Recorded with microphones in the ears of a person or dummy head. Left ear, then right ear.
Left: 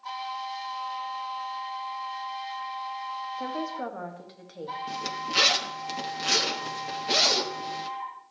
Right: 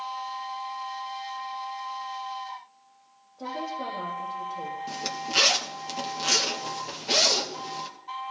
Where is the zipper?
5° right (ahead or behind), 0.8 m.